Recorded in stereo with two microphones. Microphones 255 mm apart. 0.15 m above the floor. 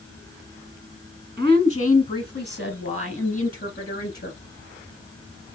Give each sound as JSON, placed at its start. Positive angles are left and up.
{"t": 1.4, "sound": "a woman speaking", "side_deg": 5, "distance_m": 1.3}